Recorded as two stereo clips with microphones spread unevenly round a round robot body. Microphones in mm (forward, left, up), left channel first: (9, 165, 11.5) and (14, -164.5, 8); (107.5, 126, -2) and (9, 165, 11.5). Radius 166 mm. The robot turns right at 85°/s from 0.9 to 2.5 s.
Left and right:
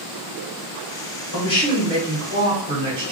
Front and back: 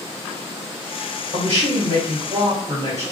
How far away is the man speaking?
About 1.3 m.